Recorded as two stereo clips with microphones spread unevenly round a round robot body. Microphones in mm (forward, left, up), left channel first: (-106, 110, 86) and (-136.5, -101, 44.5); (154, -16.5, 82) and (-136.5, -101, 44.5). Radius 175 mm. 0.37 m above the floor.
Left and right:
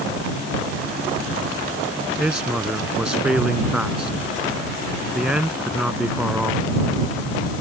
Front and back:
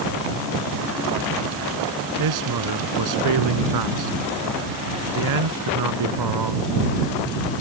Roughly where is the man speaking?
Behind.